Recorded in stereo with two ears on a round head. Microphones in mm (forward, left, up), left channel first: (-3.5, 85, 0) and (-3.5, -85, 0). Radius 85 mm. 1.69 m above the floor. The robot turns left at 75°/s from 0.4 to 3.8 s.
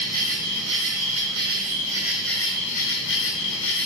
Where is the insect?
45° right, 0.9 m; by 3.9 s 60° left, 0.9 m.